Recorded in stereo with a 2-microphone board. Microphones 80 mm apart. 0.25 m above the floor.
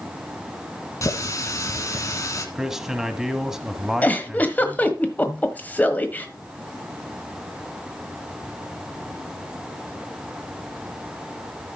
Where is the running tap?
40° left (ahead or behind), 1.8 m.